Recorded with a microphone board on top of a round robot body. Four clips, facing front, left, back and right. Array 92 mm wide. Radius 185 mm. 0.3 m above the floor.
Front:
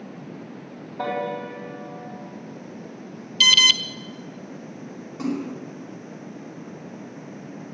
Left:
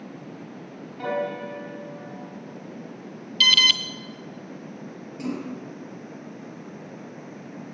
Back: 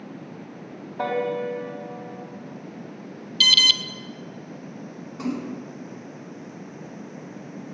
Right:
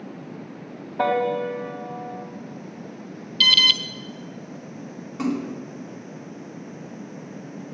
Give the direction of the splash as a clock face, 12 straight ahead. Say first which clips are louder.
Right 5 dB, front 2 dB; 3 o'clock.